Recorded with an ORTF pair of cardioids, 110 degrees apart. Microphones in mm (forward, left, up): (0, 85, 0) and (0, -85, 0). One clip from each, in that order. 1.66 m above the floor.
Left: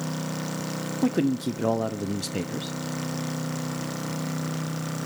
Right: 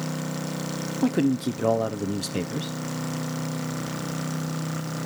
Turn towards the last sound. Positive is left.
turn(degrees=0)